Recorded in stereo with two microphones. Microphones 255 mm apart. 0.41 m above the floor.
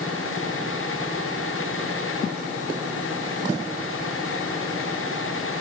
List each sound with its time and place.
Only background noise.